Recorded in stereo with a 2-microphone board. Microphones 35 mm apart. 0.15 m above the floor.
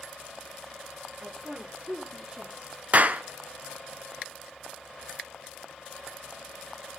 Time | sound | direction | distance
1.2 | a woman speaking | 30° right (ahead or behind) | 3.5 m
2.9 | a clap | 45° right (ahead or behind) | 1.3 m